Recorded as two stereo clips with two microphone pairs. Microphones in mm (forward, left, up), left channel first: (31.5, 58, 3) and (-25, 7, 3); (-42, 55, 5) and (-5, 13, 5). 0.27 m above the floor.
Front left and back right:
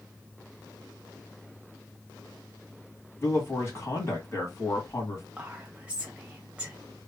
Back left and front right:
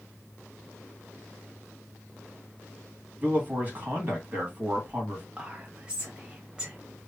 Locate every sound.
3.2 s a man speaking: 5° left, 2.5 m
5.4 s whispering: 90° right, 1.2 m